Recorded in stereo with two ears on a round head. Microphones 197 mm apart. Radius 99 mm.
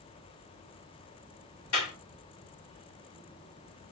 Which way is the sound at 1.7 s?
75° left (ahead or behind).